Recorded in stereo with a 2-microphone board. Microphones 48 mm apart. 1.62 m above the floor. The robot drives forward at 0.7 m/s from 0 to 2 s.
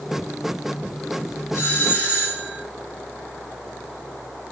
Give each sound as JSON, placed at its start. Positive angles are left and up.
{"t": 1.5, "sound": "a doorbell", "side_deg": 45, "distance_m": 2.0}